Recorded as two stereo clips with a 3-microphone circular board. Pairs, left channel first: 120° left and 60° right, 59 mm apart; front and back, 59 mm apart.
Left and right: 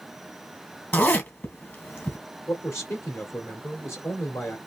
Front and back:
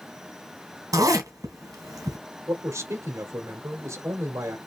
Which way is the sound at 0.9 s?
175° left.